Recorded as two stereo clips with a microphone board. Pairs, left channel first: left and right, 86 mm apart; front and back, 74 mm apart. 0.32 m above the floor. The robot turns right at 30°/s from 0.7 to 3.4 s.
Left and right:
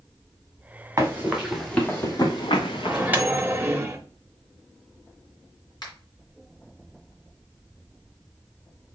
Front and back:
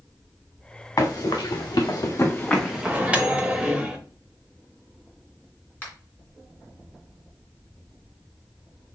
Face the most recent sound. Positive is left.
turn(degrees=65)